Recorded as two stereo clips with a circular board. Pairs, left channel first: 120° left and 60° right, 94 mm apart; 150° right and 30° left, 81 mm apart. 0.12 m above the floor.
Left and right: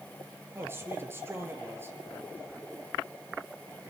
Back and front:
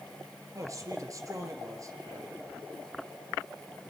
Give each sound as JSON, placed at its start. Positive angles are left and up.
{"t": 0.6, "sound": "a man speaking", "azimuth_deg": -5, "distance_m": 2.5}